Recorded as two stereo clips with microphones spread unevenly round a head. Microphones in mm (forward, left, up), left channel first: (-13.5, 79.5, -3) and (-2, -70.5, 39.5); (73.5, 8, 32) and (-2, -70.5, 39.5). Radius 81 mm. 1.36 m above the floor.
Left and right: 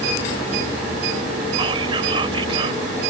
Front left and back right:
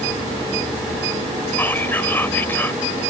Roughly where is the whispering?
Ahead right.